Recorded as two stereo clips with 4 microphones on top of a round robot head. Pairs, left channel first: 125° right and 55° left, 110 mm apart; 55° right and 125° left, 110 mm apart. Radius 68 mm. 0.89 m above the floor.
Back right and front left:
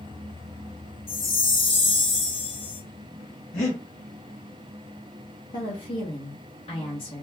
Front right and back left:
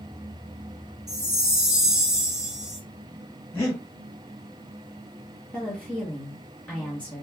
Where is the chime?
150° right, 0.9 m.